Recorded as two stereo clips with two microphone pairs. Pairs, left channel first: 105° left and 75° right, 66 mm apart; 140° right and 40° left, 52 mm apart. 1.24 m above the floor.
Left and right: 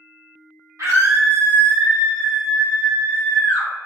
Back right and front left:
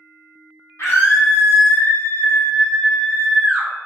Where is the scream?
110° right, 1.0 m; by 3.7 s 130° left, 1.0 m.